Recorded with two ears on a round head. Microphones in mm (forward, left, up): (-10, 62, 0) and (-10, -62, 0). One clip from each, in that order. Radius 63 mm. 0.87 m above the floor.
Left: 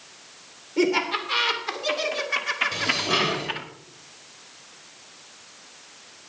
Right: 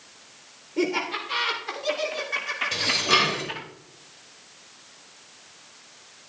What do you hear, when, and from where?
0.8 s laughter: 15° left (ahead or behind), 3 m; by 3.7 s 20° left (ahead or behind), 1.6 m
2.7 s dishes clattering: 55° right (ahead or behind), 2.5 m